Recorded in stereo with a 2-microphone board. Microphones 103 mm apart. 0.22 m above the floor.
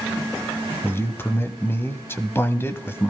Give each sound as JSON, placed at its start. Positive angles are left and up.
{"t": 0.8, "sound": "a man speaking", "side_deg": 20, "distance_m": 1.0}